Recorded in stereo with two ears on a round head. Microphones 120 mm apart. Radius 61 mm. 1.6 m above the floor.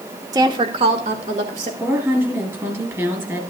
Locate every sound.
0.3 s a woman speaking: 25° right (ahead or behind), 1.0 m; by 1.7 s 55° right (ahead or behind), 2 m
1.8 s a woman speaking: 20° right (ahead or behind), 3 m